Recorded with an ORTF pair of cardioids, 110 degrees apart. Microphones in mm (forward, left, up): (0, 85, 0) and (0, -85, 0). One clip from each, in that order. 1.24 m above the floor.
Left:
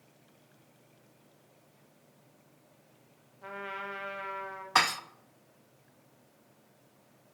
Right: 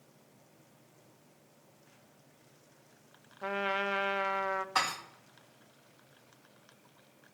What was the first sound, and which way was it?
A trumpet, 65° right.